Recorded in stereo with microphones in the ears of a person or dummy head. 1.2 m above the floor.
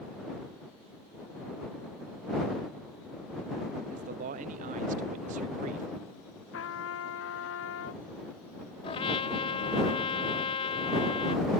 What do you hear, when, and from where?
3.9 s a man speaking: 45° right (ahead or behind)
6.5 s a trumpet: 60° left (ahead or behind)
8.8 s a trumpet: 30° left (ahead or behind)